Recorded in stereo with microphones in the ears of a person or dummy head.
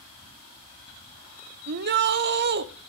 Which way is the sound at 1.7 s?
50° right (ahead or behind).